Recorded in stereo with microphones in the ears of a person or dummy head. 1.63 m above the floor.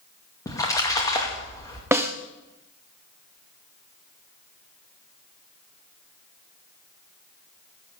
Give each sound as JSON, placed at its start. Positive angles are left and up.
{"t": 0.5, "sound": "a splash", "side_deg": 15, "distance_m": 2.5}
{"t": 1.9, "sound": "a snare drum", "side_deg": -15, "distance_m": 0.9}